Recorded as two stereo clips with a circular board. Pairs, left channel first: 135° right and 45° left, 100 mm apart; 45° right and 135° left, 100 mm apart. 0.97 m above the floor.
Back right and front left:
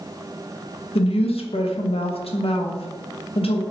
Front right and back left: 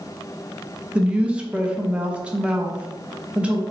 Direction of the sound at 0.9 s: 145° right.